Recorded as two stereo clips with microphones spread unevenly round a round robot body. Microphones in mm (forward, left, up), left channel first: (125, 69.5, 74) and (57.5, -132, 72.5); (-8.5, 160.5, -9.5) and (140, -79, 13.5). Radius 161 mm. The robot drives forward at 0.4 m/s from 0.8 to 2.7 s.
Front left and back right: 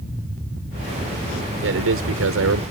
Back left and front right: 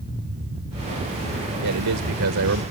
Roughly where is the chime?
No chime in this recording.